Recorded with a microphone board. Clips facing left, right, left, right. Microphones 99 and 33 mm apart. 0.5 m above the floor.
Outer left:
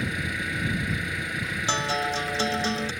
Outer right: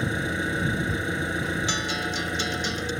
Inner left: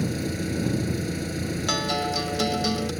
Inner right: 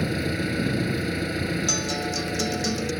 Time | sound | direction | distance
0.0 | an engine running | 30° right (ahead or behind) | ?
1.7 | a guitar | 40° left (ahead or behind) | ?